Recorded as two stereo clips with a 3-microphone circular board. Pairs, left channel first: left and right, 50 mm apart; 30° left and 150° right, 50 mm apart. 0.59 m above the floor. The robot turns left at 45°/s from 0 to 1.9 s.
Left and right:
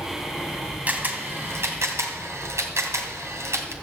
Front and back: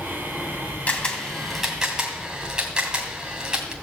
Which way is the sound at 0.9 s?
30° right.